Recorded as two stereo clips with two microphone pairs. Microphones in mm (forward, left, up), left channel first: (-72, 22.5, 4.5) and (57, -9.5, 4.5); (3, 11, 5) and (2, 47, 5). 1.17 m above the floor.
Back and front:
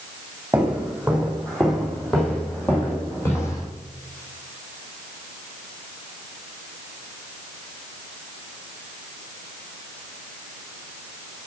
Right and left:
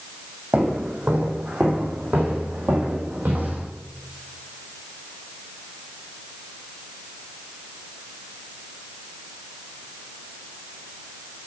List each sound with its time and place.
0.5 s footsteps: 65° left, 2.5 m; by 3.7 s 100° left, 3 m